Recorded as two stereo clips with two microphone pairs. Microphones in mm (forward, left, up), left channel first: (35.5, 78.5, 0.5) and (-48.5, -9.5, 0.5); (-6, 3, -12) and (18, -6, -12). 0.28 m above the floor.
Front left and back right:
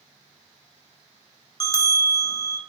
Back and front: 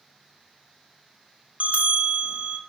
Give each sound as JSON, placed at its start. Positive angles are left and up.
{"t": 1.6, "sound": "a bell", "azimuth_deg": -15, "distance_m": 1.1}